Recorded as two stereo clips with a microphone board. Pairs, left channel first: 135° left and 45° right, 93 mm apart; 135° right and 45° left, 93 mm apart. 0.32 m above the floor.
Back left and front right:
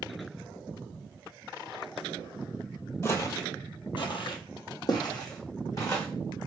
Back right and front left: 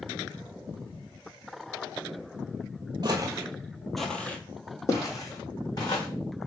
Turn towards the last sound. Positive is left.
turn(degrees=-175)